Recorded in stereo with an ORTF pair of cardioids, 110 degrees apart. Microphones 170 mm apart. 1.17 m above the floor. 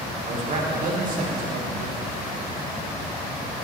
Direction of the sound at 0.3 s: 45° right.